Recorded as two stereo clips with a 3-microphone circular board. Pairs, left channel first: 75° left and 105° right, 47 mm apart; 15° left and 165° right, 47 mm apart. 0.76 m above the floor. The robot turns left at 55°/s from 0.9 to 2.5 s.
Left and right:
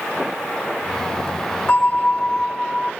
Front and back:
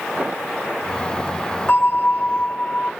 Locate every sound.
1.7 s a bell: 50° left, 1.1 m; by 2.9 s 5° left, 1.1 m